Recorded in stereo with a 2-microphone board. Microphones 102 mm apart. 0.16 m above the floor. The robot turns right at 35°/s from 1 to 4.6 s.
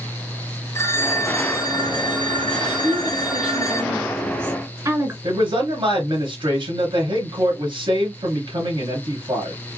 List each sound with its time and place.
0.8 s a phone ringing: 35° left, 1.5 m; by 3.8 s 135° left, 1.5 m
2.8 s a woman speaking: 155° left, 2 m; by 5.1 s 145° right, 2 m
5.2 s a man speaking: 50° right (ahead or behind), 2.5 m